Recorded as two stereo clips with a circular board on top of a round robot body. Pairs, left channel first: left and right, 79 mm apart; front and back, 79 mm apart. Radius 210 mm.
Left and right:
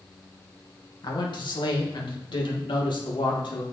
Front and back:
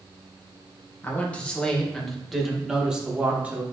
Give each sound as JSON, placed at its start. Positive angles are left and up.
{"t": 1.0, "sound": "a man speaking", "azimuth_deg": 65, "distance_m": 1.9}